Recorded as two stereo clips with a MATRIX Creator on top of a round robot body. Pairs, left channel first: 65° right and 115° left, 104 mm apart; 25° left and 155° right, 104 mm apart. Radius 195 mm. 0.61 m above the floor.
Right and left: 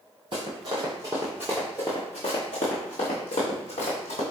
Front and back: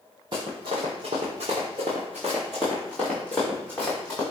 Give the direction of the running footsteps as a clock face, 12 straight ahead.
7 o'clock.